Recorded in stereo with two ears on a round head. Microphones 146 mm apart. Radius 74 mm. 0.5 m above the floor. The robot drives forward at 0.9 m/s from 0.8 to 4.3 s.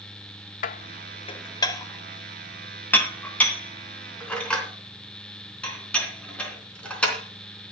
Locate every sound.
0.6 s dishes clattering: 50° left (ahead or behind), 0.5 m; by 7.7 s 10° left (ahead or behind), 3.5 m